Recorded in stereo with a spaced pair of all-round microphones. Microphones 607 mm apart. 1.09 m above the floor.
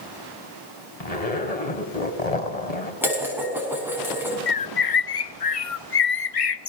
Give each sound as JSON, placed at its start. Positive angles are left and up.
{"t": 1.0, "sound": "a zipper", "side_deg": 75, "distance_m": 2.5}
{"t": 3.0, "sound": "dishes clattering", "side_deg": -5, "distance_m": 6.0}
{"t": 4.5, "sound": "a bird", "side_deg": 65, "distance_m": 0.7}